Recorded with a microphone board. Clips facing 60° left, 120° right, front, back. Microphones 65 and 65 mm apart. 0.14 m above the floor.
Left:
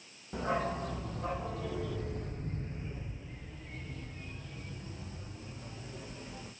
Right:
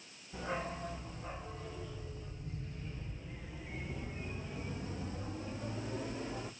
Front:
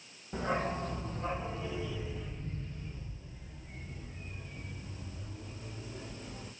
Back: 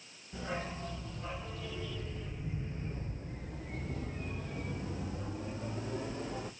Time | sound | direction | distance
0.3 | a dog barking | 40° left | 1.6 m